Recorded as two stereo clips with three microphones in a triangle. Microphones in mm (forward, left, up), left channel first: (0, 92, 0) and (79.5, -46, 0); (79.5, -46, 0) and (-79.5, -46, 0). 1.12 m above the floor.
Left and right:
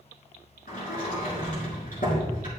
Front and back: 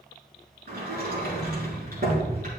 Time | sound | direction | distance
0.7 | a sliding door | 155° left | 3.5 m